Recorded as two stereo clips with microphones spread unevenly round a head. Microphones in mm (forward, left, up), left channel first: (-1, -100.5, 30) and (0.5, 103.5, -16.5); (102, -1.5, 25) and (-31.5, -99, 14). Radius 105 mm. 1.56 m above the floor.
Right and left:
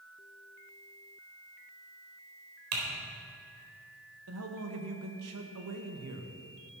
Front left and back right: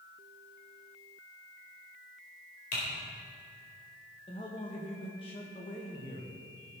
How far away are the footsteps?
I don't hear footsteps.